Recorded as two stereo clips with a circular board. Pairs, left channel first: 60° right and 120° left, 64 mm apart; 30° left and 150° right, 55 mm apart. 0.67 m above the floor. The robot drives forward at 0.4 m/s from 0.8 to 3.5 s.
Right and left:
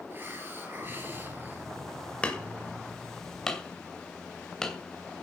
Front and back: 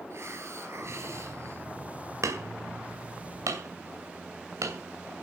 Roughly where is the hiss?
Behind.